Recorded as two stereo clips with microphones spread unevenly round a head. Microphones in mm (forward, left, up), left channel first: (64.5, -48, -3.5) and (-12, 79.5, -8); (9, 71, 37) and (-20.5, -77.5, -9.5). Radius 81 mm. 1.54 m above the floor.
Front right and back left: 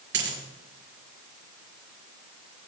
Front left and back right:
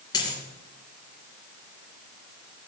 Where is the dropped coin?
140° left, 6 m.